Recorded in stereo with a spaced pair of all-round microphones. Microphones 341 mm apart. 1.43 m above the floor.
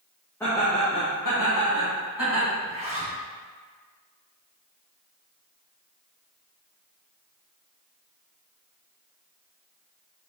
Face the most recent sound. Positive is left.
turn(degrees=-20)  # may be behind; listen again after turning